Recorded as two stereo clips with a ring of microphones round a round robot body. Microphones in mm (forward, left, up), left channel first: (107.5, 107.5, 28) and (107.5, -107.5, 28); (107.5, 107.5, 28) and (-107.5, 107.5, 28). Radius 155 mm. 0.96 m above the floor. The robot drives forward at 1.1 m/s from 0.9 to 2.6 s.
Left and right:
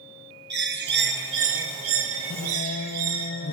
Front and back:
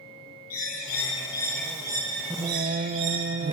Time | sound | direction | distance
0.5 | a bird | 60° right | 1.8 m
2.3 | singing | 95° left | 0.6 m